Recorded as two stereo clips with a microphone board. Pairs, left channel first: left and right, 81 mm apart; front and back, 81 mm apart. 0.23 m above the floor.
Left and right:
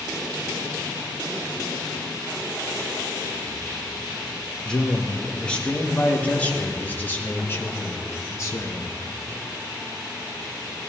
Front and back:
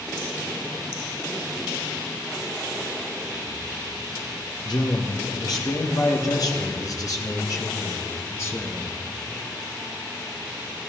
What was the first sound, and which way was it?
A man speaking, 10° left.